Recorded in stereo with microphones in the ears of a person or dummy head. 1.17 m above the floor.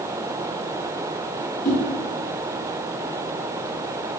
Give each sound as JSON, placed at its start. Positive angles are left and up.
{"t": 1.6, "sound": "a whoosh", "side_deg": 45, "distance_m": 1.2}